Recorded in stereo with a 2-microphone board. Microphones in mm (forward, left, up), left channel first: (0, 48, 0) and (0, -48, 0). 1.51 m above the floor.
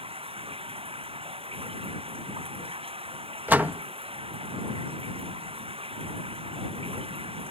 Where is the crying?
I don't hear crying.